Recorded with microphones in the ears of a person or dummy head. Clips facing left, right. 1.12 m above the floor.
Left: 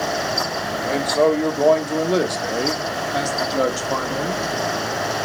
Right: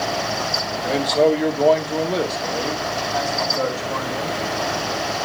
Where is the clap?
I don't hear a clap.